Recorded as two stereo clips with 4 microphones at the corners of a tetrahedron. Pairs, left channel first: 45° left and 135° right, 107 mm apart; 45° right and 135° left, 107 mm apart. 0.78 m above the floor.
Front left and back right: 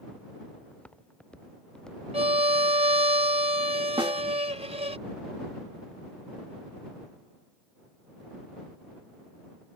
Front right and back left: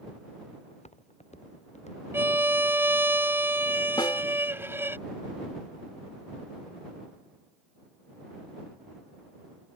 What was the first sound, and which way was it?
Footsteps, 35° right.